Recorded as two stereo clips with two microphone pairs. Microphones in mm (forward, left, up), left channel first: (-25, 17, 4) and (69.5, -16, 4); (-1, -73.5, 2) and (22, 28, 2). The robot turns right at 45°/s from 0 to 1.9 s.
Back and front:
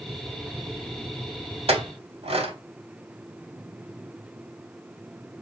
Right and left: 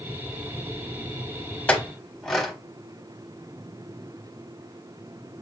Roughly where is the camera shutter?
No camera shutter in this recording.